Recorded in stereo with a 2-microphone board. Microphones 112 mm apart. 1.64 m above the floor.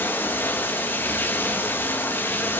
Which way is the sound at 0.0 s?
20° left (ahead or behind).